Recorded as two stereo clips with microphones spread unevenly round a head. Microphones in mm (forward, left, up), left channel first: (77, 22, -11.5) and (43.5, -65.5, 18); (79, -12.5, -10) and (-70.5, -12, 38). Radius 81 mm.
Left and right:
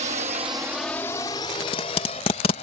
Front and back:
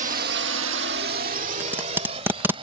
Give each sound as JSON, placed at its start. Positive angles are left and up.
{"t": 0.0, "sound": "a drone", "azimuth_deg": -135}
{"t": 1.6, "sound": "tape being pulled", "azimuth_deg": 120}